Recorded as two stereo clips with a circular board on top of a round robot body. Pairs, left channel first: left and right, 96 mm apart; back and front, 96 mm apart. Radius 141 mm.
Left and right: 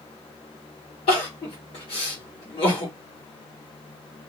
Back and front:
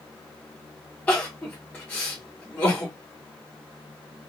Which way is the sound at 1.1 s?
105° left.